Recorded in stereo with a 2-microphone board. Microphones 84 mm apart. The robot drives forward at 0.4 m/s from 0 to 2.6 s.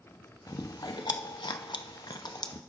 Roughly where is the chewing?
Left.